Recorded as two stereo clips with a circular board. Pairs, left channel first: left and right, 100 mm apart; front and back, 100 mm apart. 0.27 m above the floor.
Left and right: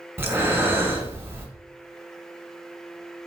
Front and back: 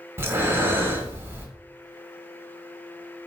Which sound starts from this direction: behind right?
Breathing, at 0.2 s.